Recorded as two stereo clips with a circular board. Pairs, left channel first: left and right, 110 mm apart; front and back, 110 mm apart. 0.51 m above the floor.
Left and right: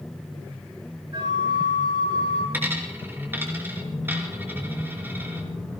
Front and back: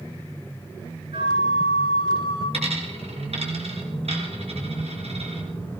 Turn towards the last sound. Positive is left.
turn(degrees=-160)